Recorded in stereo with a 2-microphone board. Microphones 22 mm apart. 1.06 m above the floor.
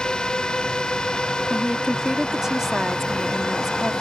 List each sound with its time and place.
0.0 s a drone: 35° left (ahead or behind)
1.5 s a woman speaking: 20° right (ahead or behind)